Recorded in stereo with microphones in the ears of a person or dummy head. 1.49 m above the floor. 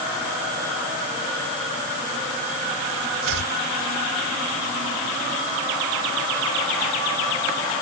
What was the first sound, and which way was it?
Chopping, 75° right (ahead or behind).